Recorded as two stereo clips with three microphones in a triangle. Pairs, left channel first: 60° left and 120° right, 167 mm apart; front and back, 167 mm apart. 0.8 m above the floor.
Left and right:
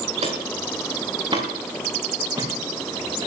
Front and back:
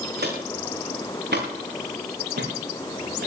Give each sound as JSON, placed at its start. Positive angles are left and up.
{"t": 0.2, "sound": "footsteps", "azimuth_deg": -170, "distance_m": 4.0}